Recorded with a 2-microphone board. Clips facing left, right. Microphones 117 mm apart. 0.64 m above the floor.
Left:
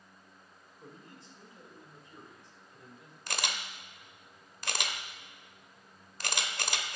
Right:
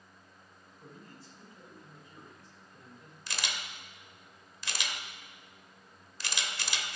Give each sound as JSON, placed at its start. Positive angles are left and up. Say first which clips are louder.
{"t": 0.8, "sound": "a man speaking", "louder": "even", "side_deg": 30, "distance_m": 2.5}
{"t": 3.3, "sound": "a camera shutter", "louder": "left 3 dB", "side_deg": 55, "distance_m": 0.8}